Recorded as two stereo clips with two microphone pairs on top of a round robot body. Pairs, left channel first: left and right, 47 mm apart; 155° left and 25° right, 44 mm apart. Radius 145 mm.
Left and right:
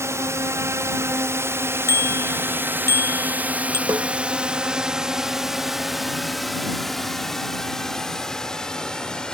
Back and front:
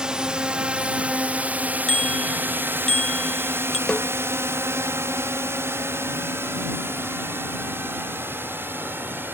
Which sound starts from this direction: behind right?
A snare drum, at 3.9 s.